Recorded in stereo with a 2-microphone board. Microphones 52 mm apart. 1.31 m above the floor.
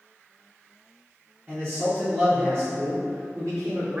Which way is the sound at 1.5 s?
40° right (ahead or behind).